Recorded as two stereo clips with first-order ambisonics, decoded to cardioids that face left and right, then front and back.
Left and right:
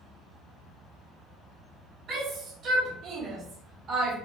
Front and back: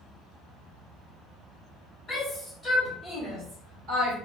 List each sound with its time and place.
2.1 s a shout: 60° right, 1.2 m; by 4.2 s 160° right, 1.7 m